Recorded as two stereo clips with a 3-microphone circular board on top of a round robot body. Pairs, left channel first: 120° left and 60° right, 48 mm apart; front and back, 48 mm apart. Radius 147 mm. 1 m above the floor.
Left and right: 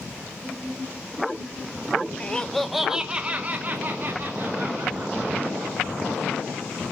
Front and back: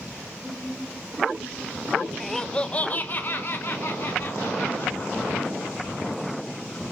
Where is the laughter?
85° left, 0.7 m; by 6.9 s 30° right, 2.5 m.